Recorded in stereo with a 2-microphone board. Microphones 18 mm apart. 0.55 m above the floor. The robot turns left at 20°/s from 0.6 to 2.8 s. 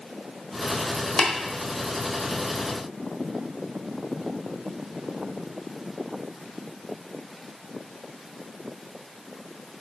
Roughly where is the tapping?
Left.